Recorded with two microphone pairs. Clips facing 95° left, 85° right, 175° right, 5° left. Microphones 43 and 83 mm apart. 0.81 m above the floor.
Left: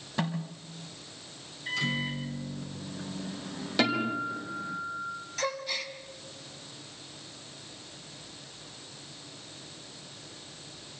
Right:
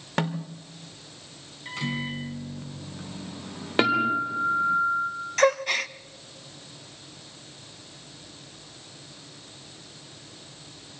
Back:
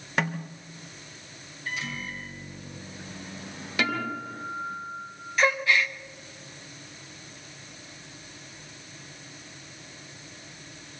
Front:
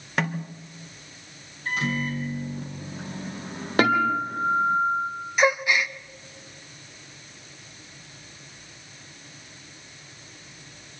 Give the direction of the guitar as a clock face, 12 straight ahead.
1 o'clock.